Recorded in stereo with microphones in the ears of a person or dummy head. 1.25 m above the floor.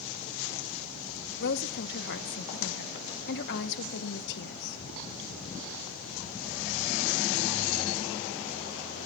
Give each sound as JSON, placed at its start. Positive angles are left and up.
{"t": 1.4, "sound": "a woman speaking", "side_deg": 50, "distance_m": 0.8}